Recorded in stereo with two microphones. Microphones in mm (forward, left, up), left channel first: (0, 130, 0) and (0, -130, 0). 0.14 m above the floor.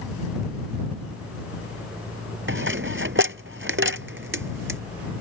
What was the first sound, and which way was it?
A dropped coin, 50° right (ahead or behind).